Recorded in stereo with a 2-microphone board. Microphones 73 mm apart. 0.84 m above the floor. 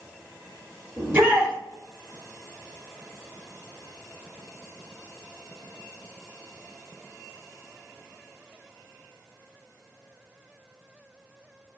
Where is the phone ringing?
No phone ringing in this recording.